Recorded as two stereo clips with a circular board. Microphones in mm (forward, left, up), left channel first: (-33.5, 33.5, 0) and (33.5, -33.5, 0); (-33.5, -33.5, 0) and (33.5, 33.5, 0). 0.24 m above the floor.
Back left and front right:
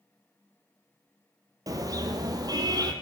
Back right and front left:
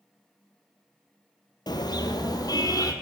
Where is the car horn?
95° right, 2 m; by 2.9 s 90° right, 3 m.